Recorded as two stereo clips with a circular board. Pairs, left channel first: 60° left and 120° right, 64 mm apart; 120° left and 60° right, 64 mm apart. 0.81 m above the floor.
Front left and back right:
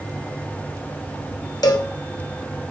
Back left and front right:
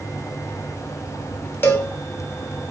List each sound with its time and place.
1.6 s a cowbell: 65° left, 0.6 m